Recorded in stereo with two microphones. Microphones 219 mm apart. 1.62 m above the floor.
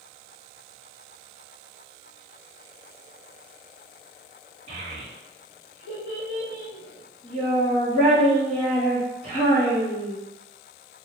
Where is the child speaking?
65° left (ahead or behind), 2.0 m.